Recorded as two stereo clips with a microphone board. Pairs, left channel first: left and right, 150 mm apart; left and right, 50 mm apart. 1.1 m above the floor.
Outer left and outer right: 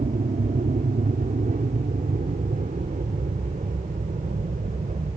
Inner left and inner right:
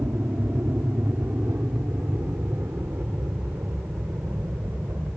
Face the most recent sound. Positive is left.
turn(degrees=-55)  # may be behind; listen again after turning